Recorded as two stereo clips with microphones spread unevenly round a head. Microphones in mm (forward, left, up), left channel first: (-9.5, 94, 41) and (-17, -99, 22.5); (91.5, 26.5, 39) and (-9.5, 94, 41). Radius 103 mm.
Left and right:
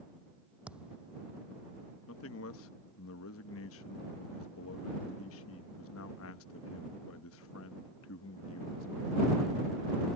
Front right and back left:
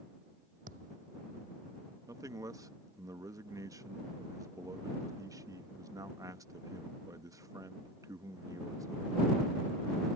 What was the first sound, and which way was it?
A thud, 175° right.